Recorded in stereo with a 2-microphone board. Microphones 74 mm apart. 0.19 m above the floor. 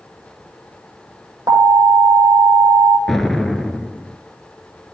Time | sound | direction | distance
1.5 | an alarm | 50° right (ahead or behind) | 6 m
3.1 | an explosion | 5° left (ahead or behind) | 0.8 m